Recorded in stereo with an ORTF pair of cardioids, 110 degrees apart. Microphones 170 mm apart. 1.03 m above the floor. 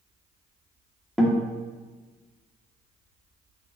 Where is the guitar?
Straight ahead, 2.0 m.